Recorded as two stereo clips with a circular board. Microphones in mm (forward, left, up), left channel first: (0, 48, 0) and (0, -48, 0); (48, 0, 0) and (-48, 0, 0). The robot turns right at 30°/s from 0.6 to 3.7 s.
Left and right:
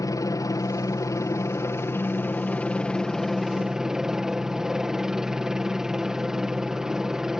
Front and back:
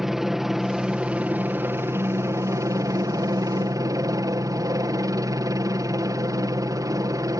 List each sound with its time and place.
0.0 s a helicopter: 95° left; by 7.4 s 170° right